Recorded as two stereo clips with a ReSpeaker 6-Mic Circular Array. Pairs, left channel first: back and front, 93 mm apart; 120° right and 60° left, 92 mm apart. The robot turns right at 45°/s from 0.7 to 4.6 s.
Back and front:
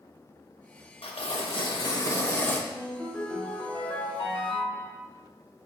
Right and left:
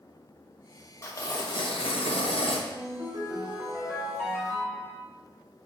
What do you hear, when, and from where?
1.0 s tearing paper: straight behind, 1.0 m; by 2.6 s 110° right, 1.0 m
2.7 s a ringtone: 85° left, 2.5 m; by 5.0 s 175° left, 2.5 m